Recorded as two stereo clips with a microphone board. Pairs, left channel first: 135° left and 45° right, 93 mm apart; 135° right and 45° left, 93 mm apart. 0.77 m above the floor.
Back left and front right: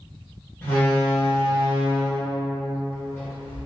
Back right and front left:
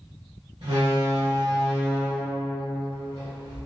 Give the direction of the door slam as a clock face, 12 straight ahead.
10 o'clock.